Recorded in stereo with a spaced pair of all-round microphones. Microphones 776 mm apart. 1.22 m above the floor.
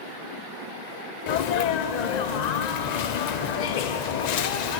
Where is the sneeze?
65° left (ahead or behind), 0.6 m.